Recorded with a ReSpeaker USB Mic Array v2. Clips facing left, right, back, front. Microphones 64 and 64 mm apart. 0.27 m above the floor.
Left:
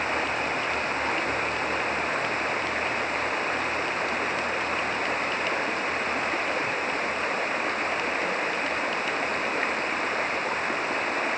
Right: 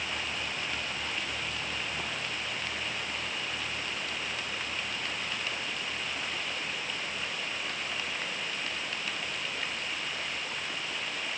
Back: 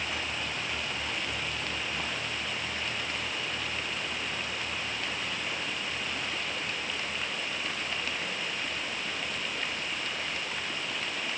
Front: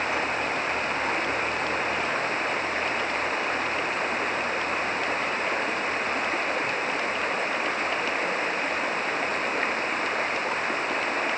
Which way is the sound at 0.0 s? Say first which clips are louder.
Left 9 dB, front 8 dB; 45° left.